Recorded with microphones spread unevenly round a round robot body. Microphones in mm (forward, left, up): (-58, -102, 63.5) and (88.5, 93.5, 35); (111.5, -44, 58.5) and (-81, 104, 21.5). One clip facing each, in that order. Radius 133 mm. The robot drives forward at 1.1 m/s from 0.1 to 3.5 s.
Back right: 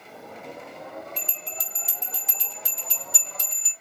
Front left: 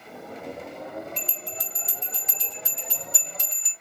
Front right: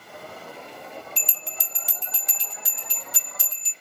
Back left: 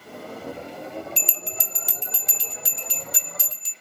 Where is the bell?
160° left, 0.5 m; by 3.7 s 175° left, 3 m.